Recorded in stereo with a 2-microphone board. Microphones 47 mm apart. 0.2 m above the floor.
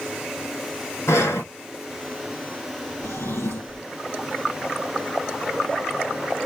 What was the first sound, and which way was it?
Breathing, 75° left (ahead or behind).